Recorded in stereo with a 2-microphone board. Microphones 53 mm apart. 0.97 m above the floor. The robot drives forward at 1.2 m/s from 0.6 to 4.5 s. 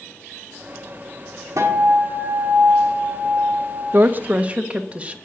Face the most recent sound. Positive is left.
turn(degrees=-25)  # may be behind; listen again after turning